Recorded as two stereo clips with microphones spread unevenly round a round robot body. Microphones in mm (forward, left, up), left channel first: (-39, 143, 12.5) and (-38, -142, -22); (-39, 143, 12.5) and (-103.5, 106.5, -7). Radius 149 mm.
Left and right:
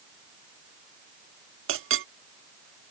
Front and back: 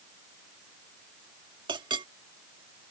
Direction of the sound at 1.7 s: 135° right.